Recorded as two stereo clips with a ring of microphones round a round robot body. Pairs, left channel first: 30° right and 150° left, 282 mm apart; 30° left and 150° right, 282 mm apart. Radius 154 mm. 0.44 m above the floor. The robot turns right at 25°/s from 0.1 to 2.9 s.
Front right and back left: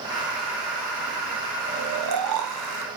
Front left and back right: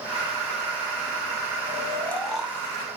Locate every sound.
1.7 s snoring: 105° left, 0.9 m; by 2.9 s 135° left, 0.9 m